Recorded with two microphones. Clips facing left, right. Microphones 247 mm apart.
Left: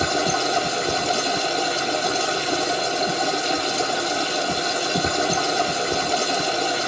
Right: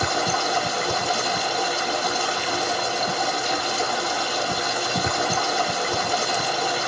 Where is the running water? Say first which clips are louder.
Left 3 dB; 25° left (ahead or behind), 1.1 m.